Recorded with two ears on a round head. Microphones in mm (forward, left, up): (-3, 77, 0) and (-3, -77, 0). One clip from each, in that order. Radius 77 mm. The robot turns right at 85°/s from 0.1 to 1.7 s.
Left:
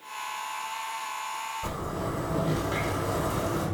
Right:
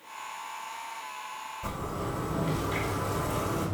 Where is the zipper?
5° right (ahead or behind), 2.5 m; by 3.6 s 10° right (ahead or behind), 2.5 m.